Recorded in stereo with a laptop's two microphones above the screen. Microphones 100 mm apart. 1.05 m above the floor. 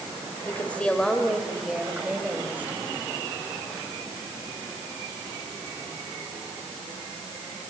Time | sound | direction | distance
0.5 | a woman speaking | 20° left (ahead or behind) | 3.5 m